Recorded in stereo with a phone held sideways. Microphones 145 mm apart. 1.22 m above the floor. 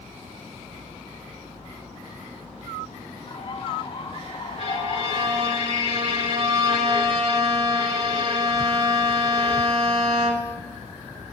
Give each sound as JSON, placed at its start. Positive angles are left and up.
{"t": 3.3, "sound": "a bird", "side_deg": 45, "distance_m": 2.0}
{"t": 4.6, "sound": "a violin", "side_deg": -45, "distance_m": 2.5}